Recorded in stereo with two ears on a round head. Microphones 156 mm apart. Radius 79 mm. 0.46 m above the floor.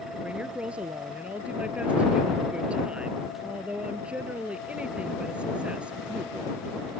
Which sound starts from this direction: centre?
A woman speaking, at 0.2 s.